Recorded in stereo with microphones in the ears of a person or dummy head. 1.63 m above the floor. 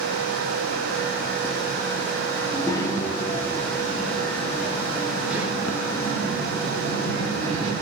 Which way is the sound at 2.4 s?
25° left (ahead or behind).